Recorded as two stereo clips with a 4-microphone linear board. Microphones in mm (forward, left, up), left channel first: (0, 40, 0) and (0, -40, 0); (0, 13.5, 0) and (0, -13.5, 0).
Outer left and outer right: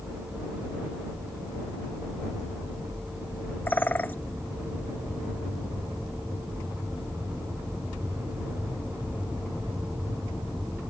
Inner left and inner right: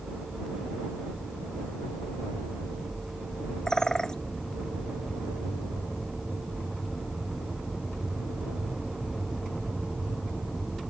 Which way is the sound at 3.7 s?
25° left (ahead or behind).